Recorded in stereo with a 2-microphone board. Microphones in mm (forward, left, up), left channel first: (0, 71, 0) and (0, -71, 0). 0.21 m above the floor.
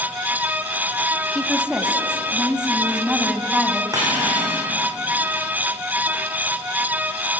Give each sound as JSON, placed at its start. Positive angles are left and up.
{"t": 1.4, "sound": "a woman speaking", "side_deg": -5, "distance_m": 1.7}
{"t": 3.9, "sound": "cutlery clinking", "side_deg": -25, "distance_m": 9.5}